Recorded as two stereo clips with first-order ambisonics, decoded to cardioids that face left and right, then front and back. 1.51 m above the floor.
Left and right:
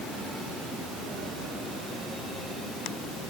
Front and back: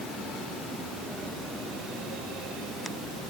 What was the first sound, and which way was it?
Only background noise.